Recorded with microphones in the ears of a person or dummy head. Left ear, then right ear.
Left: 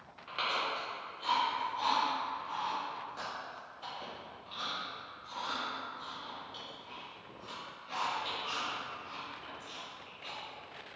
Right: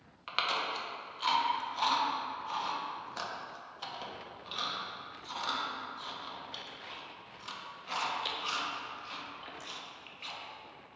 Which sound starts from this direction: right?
Chewing, at 0.3 s.